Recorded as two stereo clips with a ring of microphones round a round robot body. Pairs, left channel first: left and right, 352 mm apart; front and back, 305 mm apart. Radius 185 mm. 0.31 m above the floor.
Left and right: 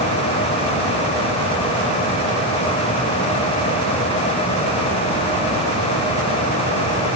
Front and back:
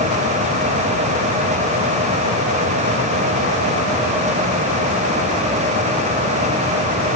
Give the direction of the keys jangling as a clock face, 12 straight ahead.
No keys jangling in this recording.